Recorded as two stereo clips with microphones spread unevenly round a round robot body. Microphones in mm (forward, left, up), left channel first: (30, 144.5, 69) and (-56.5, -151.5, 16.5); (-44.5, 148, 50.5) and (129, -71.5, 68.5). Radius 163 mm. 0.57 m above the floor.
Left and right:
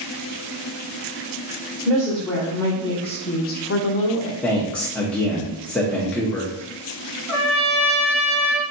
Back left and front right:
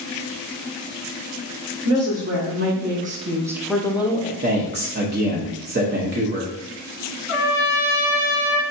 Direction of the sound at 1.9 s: 25° right.